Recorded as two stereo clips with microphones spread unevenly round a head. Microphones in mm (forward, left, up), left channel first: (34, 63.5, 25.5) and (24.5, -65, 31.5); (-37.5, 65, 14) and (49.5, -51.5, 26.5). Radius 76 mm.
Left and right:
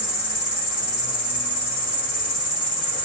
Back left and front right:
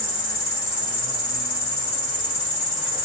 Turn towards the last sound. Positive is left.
turn(degrees=70)